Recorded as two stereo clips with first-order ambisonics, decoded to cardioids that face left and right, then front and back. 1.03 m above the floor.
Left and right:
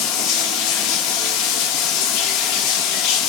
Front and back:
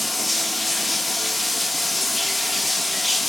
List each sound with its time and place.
0.0 s running water: 85° left, 1.1 m